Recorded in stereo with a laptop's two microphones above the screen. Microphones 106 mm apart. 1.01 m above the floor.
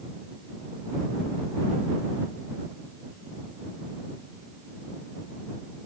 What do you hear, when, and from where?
Only background noise.